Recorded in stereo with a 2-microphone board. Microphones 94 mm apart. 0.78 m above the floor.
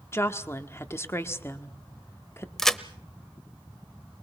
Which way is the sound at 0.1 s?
25° left (ahead or behind).